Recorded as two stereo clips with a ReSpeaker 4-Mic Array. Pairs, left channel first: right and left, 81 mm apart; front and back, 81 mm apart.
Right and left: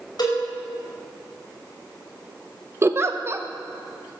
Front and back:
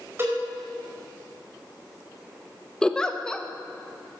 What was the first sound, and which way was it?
A cowbell, 120° right.